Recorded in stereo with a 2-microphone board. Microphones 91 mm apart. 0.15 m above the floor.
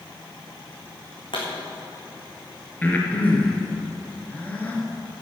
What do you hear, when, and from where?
1.3 s a pop: 65° left (ahead or behind), 4 m
2.8 s breathing: 15° left (ahead or behind), 2.5 m